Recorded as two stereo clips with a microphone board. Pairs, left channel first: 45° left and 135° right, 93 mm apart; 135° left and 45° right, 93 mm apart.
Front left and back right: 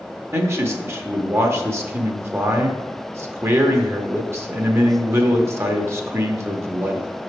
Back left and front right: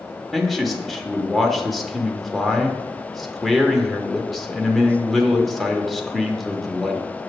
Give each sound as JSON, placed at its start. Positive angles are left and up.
{"t": 0.3, "sound": "a man speaking", "azimuth_deg": -140, "distance_m": 0.8}